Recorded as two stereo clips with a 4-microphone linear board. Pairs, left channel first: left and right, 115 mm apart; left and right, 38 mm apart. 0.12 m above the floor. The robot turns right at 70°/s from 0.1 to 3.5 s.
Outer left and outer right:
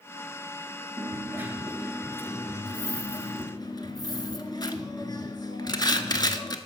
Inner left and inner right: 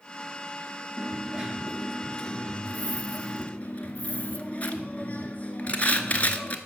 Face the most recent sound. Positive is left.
turn(degrees=120)